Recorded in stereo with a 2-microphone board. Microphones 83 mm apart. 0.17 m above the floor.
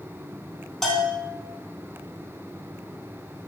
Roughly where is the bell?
Centre.